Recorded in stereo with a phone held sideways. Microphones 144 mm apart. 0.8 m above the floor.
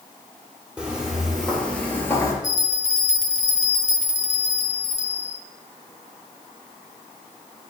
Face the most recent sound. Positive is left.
turn(degrees=55)  # may be behind; listen again after turning